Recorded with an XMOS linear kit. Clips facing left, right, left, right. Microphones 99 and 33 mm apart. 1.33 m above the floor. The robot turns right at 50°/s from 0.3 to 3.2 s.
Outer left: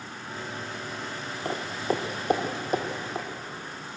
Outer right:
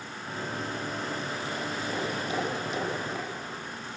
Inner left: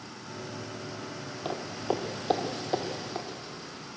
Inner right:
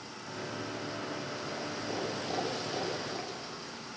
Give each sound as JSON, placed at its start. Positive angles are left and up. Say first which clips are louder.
{"t": 1.4, "sound": "footsteps", "louder": "outer left 4 dB, inner left 9 dB", "side_deg": 60, "distance_m": 2.5}